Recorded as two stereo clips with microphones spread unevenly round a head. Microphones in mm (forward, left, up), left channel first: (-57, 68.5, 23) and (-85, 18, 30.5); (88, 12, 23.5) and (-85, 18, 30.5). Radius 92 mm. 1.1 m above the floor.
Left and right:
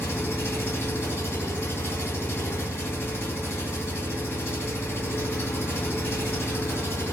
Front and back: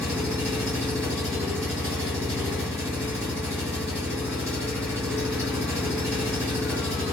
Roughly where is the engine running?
Left.